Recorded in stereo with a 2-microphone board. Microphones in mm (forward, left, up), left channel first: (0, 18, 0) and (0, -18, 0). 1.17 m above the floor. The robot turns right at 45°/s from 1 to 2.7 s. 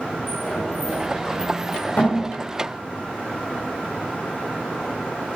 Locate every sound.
0.3 s a sliding door: centre (ahead or behind), 5.5 m; by 2.2 s 55° left (ahead or behind), 5.5 m